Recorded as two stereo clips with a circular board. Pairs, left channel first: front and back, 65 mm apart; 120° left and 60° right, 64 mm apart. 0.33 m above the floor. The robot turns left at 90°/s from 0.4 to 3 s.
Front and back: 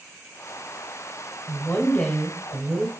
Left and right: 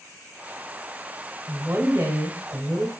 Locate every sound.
1.5 s a woman speaking: 15° right, 1.1 m; by 2.9 s 145° right, 1.1 m